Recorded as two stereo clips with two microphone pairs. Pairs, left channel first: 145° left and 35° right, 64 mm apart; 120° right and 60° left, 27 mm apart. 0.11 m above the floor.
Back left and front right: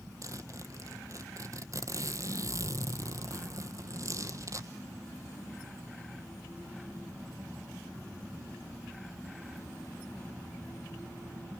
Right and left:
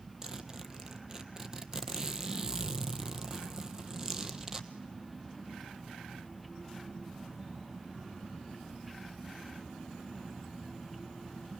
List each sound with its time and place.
0.2 s a zipper: 5° right, 1.2 m